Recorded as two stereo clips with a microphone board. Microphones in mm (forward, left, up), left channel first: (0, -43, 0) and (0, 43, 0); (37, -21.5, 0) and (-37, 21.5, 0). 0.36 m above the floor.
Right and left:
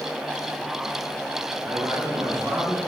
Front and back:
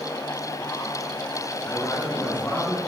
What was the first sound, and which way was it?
A man speaking, 40° left.